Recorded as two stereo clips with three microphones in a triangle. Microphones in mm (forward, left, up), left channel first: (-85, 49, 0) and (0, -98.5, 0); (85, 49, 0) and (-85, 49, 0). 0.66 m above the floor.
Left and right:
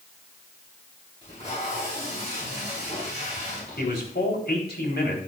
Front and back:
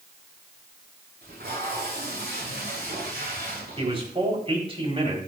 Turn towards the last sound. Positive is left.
turn(degrees=125)